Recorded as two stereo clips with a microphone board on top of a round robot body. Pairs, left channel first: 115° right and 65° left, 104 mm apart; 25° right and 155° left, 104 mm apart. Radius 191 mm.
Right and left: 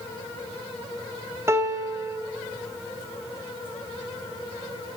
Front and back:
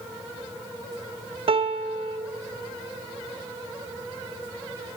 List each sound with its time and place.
1.5 s a piano: 130° left, 0.6 m